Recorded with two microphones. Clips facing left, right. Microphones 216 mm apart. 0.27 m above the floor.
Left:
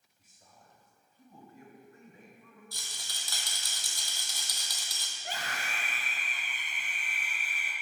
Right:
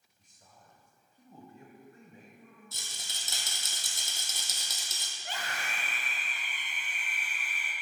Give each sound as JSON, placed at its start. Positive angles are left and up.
{"t": 0.2, "sound": "a man speaking", "side_deg": 5, "distance_m": 1.4}
{"t": 2.7, "sound": "a rattle", "side_deg": -25, "distance_m": 1.4}
{"t": 5.2, "sound": "a scream", "side_deg": 40, "distance_m": 2.0}